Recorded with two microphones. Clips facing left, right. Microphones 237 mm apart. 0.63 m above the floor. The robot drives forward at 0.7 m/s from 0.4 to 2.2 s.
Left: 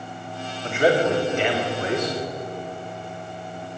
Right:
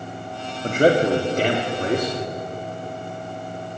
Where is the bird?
No bird in this recording.